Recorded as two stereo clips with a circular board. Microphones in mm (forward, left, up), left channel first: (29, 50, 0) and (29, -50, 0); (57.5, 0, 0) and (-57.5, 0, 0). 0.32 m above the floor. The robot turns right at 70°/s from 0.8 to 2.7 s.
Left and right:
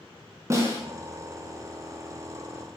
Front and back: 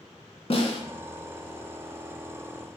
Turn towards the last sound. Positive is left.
turn(degrees=100)